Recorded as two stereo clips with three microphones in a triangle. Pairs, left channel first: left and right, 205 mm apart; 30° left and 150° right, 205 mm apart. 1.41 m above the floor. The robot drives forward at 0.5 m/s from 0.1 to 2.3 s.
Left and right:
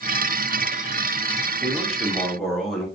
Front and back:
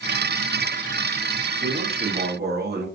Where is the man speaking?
175° left, 0.9 m; by 2.9 s straight behind, 1.2 m.